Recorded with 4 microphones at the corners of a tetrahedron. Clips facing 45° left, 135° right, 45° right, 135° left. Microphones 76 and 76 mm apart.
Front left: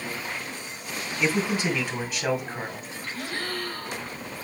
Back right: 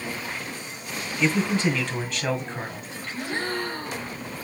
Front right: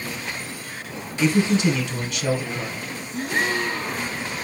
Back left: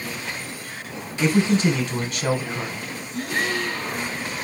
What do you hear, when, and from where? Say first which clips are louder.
1.2 s a man speaking: back right 2 dB, even; 120° left, 1.4 m
3.1 s a gasp: back right 4 dB, front right 1 dB; 90° right, 0.8 m